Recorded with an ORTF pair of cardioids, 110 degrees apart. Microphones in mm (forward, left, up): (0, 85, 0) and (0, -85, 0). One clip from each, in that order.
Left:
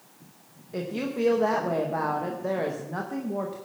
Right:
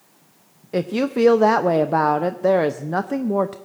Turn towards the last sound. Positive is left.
turn(degrees=-55)